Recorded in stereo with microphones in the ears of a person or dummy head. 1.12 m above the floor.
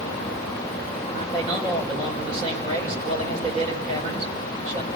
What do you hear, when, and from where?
1.1 s a man speaking: 35° right (ahead or behind), 4 m